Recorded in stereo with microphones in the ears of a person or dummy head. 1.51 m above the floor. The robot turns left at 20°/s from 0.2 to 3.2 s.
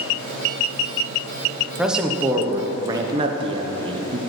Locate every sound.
1.8 s a man speaking: centre (ahead or behind), 0.8 m; by 4.2 s 25° right (ahead or behind), 0.8 m